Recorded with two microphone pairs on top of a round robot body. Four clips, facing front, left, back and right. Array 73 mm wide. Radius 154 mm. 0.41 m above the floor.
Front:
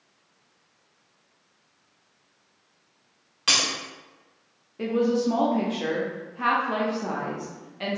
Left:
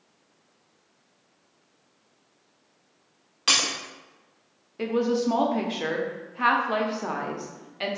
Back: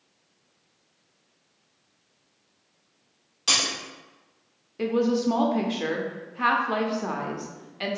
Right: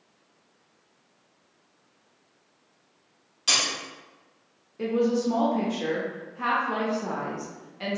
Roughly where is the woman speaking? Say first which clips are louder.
Even, even; behind left.